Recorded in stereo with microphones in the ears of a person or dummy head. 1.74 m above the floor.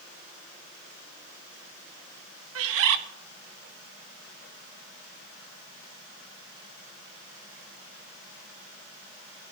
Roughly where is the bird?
Right.